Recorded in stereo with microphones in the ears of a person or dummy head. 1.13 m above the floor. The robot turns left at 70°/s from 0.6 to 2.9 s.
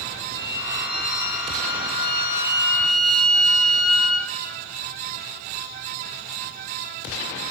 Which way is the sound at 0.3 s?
160° left.